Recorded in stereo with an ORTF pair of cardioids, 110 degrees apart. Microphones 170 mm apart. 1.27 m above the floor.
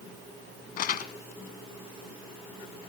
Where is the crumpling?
65° left, 1.1 m.